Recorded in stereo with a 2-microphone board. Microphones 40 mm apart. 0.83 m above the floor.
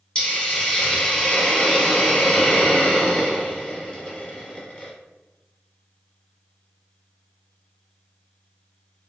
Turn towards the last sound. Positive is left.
turn(degrees=30)  # may be behind; listen again after turning